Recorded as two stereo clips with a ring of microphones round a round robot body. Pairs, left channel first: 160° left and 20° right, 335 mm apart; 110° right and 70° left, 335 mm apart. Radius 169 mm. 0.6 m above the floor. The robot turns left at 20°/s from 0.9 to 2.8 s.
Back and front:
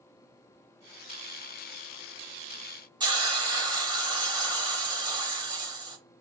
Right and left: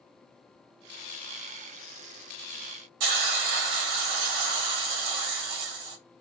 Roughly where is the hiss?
Ahead left.